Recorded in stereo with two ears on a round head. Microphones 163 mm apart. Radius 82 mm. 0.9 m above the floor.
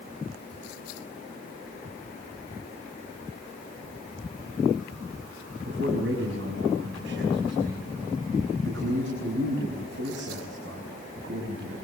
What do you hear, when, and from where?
5.7 s a man speaking: 70° right (ahead or behind), 6 m